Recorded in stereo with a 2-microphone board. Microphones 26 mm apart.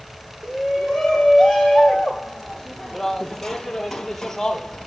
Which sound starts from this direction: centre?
A shout, at 0.4 s.